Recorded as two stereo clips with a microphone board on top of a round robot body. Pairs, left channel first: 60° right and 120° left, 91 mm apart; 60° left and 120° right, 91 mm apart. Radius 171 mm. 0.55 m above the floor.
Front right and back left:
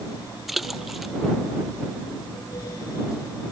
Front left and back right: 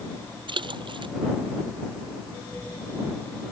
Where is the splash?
150° right.